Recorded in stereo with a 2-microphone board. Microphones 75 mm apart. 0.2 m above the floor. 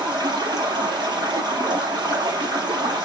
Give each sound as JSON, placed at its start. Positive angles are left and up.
{"t": 0.0, "sound": "running water", "side_deg": -75, "distance_m": 5.0}